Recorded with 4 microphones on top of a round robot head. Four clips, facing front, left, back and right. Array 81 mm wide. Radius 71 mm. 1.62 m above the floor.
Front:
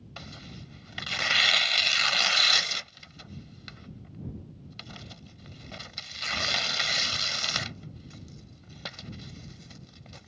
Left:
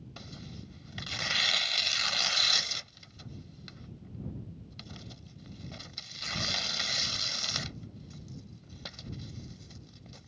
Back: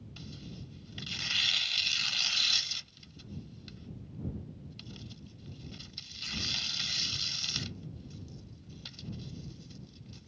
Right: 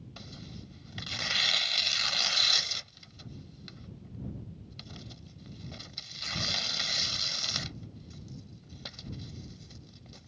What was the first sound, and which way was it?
Tearing paper, 5° left.